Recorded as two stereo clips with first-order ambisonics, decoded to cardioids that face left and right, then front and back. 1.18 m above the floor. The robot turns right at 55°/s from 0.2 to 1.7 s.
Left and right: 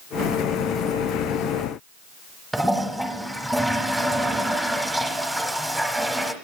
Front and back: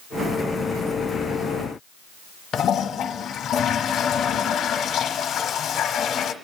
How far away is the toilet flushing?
About 1.1 m.